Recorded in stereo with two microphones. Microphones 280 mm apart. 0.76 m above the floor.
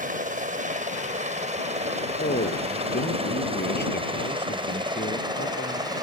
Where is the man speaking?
35° left (ahead or behind).